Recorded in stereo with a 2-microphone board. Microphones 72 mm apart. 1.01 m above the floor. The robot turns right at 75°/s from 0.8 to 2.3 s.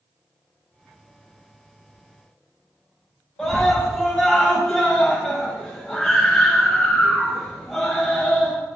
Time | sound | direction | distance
3.4 | a scream | 5° left (ahead or behind) | 5 m